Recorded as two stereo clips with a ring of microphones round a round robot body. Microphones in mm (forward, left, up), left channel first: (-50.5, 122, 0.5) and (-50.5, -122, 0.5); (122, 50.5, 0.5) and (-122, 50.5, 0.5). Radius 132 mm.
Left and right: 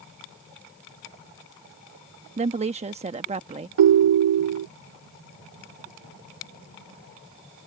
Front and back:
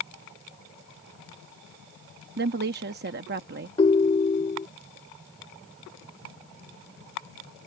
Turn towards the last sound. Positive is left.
turn(degrees=-75)